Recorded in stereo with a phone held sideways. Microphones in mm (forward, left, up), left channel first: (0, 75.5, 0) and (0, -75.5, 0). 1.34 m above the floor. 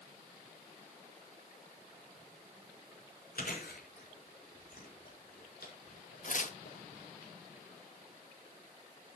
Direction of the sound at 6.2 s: 60° left (ahead or behind).